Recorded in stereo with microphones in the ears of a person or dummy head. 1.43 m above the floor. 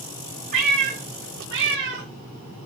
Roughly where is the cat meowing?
Right.